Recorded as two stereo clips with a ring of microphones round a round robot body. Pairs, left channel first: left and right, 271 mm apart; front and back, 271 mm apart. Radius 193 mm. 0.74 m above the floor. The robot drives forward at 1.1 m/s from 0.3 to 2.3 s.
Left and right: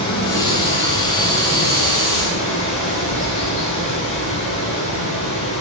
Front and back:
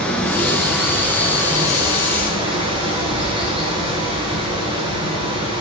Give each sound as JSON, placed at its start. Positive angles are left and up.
{"t": 0.0, "sound": "running water", "azimuth_deg": 85, "distance_m": 5.0}